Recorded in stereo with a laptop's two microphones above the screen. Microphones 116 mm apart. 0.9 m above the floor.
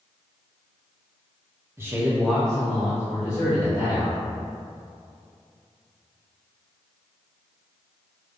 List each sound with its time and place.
1.8 s a man speaking: 20° right (ahead or behind), 0.9 m; by 4.2 s 35° left (ahead or behind), 1.9 m